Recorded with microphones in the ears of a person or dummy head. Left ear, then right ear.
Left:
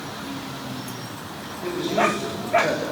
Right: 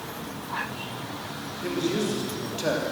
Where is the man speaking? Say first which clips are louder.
Left 6 dB; 20° right (ahead or behind), 3.5 m; by 2.8 s 5° right (ahead or behind), 2 m.